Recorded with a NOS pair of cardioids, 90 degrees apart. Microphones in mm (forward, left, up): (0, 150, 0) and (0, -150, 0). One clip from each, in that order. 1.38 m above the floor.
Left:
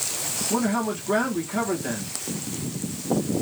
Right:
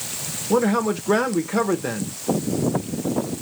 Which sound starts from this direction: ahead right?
A man speaking, at 0.5 s.